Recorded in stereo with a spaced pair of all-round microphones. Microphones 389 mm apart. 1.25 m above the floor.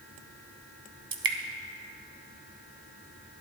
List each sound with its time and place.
1.1 s dripping: 60° right (ahead or behind), 0.7 m